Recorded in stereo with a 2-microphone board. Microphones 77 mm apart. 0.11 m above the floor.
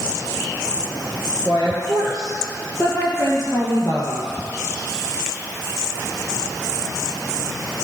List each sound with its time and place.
1.4 s a woman speaking: 50° left (ahead or behind), 1.8 m; by 4.3 s 30° left (ahead or behind), 2.5 m